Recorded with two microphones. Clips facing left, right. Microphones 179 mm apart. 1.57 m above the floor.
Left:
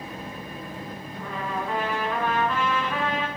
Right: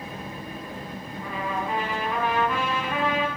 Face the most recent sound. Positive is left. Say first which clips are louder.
# right 1 dB
turn(degrees=-15)  # may be behind; listen again after turning